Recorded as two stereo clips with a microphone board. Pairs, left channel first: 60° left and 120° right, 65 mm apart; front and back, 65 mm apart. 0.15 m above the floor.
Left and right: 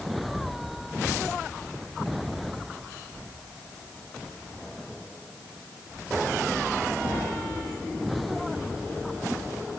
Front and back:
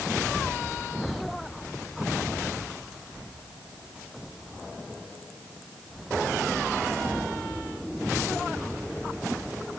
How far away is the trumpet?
I don't hear a trumpet.